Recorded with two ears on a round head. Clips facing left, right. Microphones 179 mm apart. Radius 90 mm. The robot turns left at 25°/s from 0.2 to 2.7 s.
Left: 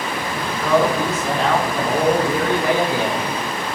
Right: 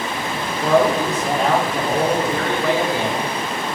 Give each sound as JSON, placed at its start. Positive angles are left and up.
{"t": 0.6, "sound": "a man speaking", "azimuth_deg": -145, "distance_m": 1.5}